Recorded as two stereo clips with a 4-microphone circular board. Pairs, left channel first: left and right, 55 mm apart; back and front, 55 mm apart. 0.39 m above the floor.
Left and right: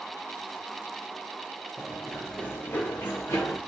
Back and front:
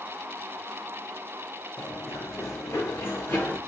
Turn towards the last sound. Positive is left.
turn(degrees=130)